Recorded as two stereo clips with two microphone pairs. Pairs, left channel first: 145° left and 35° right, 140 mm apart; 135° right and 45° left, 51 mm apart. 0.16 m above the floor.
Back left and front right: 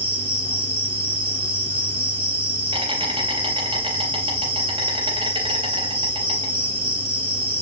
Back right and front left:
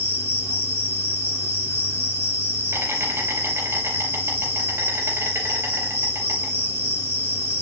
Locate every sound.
0.0 s an insect: 15° left, 4 m